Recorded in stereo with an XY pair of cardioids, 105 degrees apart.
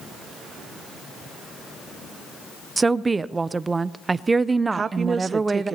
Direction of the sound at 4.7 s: 40° right.